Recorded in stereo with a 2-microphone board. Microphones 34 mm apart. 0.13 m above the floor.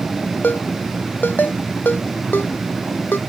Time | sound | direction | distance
0.4 | a ringtone | 70° left (ahead or behind) | ?